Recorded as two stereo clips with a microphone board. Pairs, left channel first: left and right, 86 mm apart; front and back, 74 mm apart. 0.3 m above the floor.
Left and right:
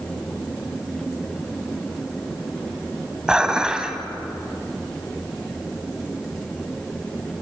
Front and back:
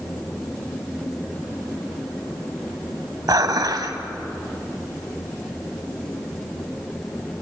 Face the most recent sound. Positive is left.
turn(degrees=-170)